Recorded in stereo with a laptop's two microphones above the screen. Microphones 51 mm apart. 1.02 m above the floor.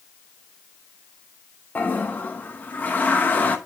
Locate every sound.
1.8 s a toilet flushing: 35° left (ahead or behind), 0.9 m